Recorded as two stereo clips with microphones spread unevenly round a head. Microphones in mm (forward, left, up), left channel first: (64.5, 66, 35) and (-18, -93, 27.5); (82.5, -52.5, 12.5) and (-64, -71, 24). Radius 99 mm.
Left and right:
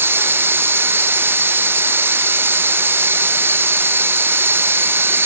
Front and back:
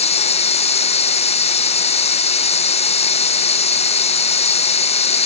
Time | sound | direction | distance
0.0 | running water | 40° right | ?